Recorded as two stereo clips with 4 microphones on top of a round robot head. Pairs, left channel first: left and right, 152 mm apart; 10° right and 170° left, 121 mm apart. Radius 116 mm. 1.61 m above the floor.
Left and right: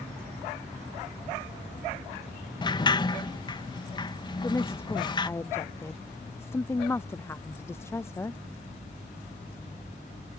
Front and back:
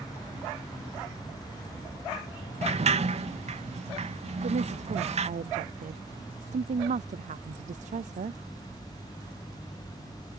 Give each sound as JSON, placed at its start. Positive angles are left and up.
{"t": 2.6, "sound": "a sliding door", "azimuth_deg": 150}
{"t": 4.4, "sound": "a woman speaking", "azimuth_deg": 165}